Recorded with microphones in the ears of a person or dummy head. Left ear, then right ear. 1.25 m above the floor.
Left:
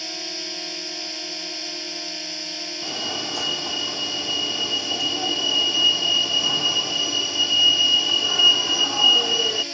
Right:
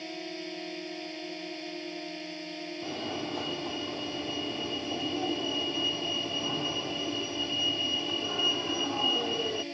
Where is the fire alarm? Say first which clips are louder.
Left 8 dB; 55° left (ahead or behind).